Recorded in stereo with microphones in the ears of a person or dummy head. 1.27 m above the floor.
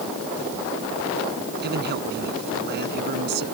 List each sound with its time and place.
1.6 s a man speaking: 50° right (ahead or behind)